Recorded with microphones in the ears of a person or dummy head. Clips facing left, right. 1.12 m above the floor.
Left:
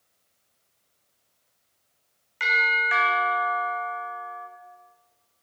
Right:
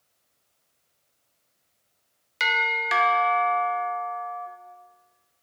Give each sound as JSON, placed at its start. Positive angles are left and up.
{"t": 2.4, "sound": "a doorbell", "side_deg": -45, "distance_m": 0.8}